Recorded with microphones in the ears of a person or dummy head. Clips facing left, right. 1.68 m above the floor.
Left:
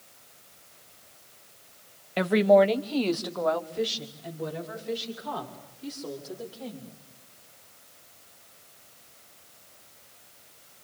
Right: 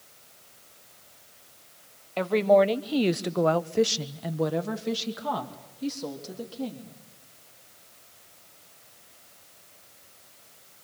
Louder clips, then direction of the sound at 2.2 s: Left 1 dB; 20° left (ahead or behind).